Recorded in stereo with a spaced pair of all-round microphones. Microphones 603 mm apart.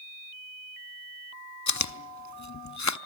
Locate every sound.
1.7 s chewing: 30° left (ahead or behind), 0.6 m